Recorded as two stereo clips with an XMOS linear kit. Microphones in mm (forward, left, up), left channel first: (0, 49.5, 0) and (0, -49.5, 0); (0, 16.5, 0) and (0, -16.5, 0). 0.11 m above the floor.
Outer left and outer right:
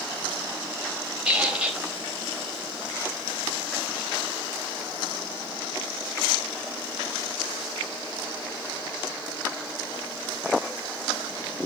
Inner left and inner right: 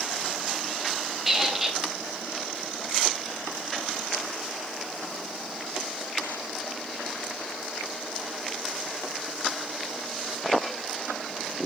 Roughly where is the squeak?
Centre.